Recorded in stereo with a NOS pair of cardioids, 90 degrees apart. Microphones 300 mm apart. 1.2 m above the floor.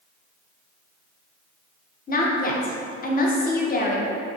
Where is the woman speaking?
30° left, 0.6 m.